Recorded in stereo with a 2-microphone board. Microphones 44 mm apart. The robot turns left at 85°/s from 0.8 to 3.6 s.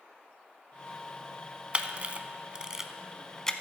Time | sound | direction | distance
1.7 | a camera shutter | 30° right (ahead or behind) | 0.6 m